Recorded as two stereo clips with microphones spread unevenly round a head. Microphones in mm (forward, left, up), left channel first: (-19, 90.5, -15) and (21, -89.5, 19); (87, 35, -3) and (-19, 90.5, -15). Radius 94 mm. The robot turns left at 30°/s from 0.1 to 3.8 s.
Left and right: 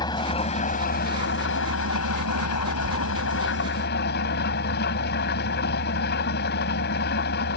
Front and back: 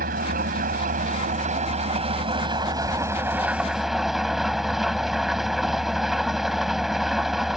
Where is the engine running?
175° left; by 7.6 s 65° left.